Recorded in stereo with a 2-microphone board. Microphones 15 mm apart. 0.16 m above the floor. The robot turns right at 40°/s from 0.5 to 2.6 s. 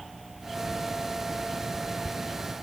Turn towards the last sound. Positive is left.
No sound to turn to.